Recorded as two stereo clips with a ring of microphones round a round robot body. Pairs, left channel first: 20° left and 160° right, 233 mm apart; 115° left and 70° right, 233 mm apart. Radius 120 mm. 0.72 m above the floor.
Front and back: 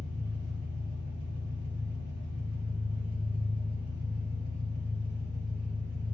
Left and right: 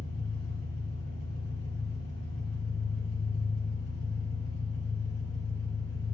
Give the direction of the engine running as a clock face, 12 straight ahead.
7 o'clock.